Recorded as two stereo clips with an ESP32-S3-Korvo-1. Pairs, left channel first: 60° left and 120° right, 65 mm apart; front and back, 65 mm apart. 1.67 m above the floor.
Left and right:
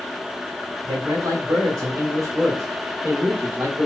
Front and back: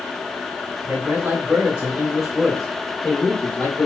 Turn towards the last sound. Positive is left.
turn(degrees=-60)